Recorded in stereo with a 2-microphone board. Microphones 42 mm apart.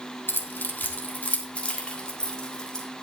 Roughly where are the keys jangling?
Left.